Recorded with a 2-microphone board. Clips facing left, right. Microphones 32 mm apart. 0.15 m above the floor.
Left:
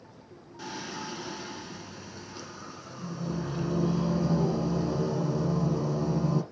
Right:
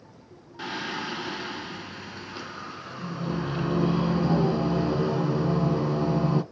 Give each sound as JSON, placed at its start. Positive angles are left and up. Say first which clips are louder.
{"t": 0.6, "sound": "singing", "louder": "right 6 dB", "side_deg": -35, "distance_m": 0.8}